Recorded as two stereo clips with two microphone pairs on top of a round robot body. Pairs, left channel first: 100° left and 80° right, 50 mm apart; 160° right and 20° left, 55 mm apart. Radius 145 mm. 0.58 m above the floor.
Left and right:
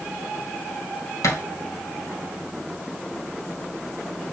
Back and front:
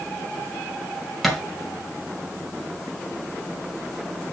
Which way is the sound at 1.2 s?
110° left.